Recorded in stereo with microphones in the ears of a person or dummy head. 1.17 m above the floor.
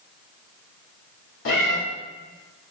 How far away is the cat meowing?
About 1.4 m.